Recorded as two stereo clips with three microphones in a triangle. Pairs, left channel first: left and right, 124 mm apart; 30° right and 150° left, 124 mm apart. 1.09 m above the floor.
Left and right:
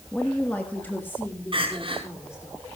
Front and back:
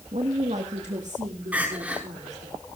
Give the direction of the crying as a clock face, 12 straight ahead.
4 o'clock.